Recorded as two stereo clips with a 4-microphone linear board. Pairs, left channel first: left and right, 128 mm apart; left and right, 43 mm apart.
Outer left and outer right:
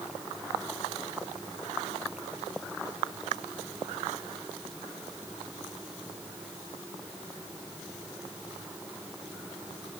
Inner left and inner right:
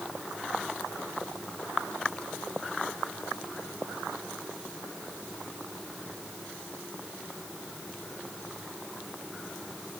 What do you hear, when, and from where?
Only background noise.